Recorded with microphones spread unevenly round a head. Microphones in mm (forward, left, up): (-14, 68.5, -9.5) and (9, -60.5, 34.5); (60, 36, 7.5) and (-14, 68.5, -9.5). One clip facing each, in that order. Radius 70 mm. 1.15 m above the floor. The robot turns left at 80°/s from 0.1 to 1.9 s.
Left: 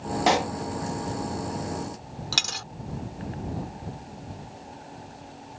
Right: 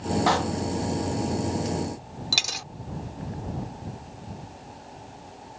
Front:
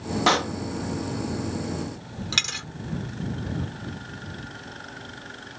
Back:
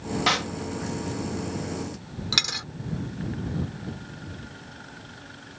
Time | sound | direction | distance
0.3 | a pop | 30° left | ?
2.3 | a dropped coin | 115° right | ?